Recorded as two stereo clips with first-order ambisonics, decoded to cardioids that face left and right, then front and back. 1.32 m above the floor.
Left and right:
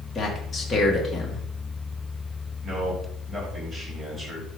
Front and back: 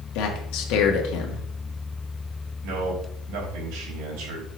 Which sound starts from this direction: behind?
A man speaking, at 2.6 s.